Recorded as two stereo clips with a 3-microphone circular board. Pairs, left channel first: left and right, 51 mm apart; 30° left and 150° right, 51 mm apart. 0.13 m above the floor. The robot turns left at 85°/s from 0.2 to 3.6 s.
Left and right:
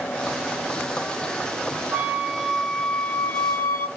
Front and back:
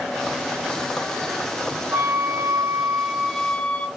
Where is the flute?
125° right, 1.4 m; by 3.9 s 95° left, 1.4 m.